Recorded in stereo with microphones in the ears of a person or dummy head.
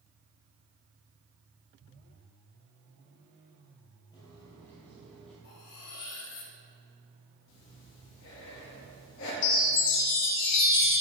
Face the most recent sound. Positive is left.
turn(degrees=65)  # may be behind; listen again after turning